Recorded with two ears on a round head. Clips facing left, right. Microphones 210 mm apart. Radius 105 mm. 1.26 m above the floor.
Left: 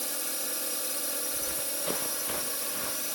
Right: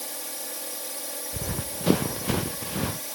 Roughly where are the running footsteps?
Right.